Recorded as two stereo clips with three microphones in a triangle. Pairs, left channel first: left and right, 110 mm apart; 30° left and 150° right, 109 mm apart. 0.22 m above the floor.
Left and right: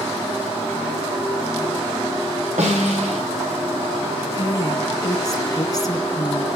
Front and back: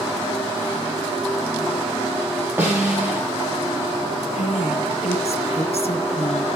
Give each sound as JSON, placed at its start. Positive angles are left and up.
{"t": 2.6, "sound": "a snare drum", "azimuth_deg": -75, "distance_m": 8.5}
{"t": 4.3, "sound": "a woman speaking", "azimuth_deg": 35, "distance_m": 3.5}